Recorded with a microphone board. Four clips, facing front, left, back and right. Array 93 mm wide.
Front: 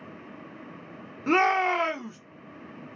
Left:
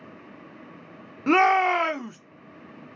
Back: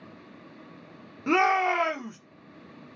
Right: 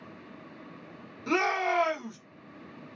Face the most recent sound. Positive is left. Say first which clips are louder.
# left 8 dB, even
turn(degrees=85)